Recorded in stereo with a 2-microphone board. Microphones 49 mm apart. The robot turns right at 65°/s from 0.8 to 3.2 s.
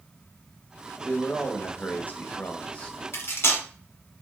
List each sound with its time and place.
1.0 s a man speaking: 15° left, 1.3 m; by 3.0 s 140° left, 1.3 m
3.1 s cutlery clinking: 55° left (ahead or behind), 1.3 m; by 3.6 s 60° left (ahead or behind), 1.3 m